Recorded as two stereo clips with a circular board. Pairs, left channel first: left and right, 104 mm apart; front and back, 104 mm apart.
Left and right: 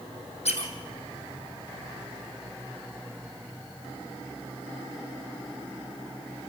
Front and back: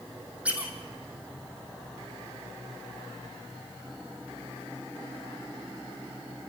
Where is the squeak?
100° left, 2.5 m.